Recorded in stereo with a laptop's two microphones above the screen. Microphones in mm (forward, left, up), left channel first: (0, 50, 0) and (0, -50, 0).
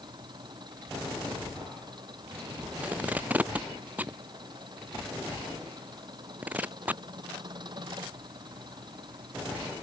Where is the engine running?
45° right (ahead or behind).